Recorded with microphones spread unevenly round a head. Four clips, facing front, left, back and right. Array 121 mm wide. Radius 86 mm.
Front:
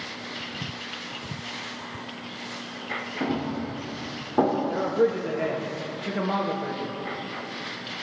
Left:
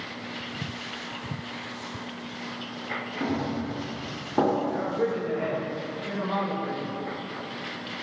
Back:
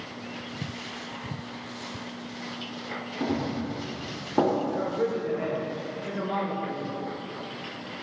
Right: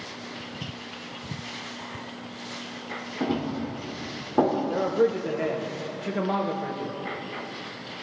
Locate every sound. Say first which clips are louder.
3.2 s running footsteps: right 2 dB, even; 120° right, 6 m; by 5.5 s 140° right, 5.5 m
4.7 s a man speaking: right 4 dB, front 4 dB; 80° right, 2.5 m